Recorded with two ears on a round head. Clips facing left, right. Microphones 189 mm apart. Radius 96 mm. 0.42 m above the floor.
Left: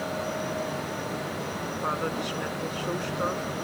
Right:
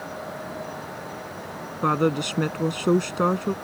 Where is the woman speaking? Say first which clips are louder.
Right 10 dB; 60° right (ahead or behind).